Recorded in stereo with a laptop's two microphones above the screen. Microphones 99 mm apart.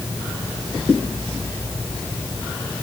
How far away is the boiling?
I don't hear boiling.